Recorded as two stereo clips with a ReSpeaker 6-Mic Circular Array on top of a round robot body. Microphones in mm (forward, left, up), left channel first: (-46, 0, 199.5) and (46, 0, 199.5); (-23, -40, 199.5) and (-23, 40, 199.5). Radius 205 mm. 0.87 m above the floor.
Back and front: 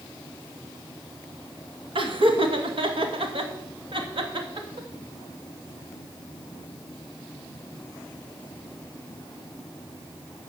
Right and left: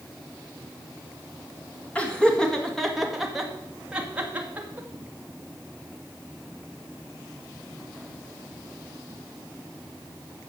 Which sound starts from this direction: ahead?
Laughter, at 1.9 s.